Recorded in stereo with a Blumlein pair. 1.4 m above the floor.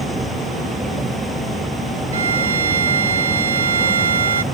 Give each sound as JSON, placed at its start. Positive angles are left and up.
{"t": 0.0, "sound": "a vehicle", "azimuth_deg": -5}
{"t": 2.1, "sound": "a violin", "azimuth_deg": -70}